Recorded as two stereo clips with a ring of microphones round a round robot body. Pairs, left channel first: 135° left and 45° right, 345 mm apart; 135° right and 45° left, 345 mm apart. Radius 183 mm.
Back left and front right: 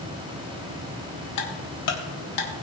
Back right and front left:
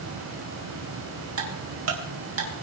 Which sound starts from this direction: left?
Ticking, at 1.4 s.